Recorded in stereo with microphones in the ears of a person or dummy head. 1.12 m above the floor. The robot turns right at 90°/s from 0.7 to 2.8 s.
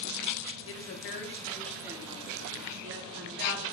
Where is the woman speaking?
90° left, 0.5 m; by 3.6 s 80° right, 0.5 m.